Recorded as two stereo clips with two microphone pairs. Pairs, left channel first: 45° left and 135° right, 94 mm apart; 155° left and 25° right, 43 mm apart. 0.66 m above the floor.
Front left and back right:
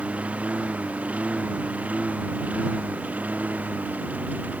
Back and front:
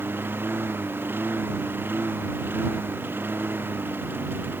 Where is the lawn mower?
60° right.